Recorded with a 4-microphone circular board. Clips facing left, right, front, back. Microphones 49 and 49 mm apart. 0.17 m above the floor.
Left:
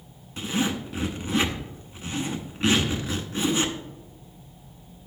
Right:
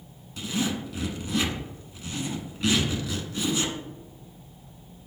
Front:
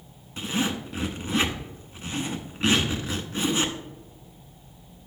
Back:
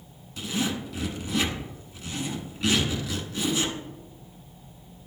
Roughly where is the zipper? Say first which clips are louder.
Left 2 dB, front 1 dB; ahead left.